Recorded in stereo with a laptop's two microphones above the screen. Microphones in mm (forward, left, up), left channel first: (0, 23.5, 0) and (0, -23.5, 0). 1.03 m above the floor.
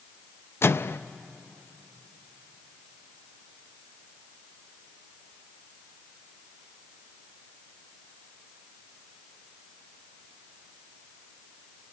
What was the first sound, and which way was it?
A microwave, 60° left (ahead or behind).